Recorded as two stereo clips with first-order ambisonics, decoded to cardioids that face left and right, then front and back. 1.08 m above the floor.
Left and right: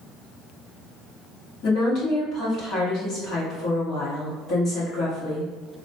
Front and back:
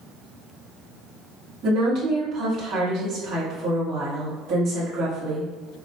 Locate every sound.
1.6 s a woman speaking: 135° left, 1.7 m